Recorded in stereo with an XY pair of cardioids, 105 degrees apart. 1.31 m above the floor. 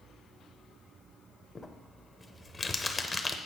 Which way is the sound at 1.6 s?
20° left.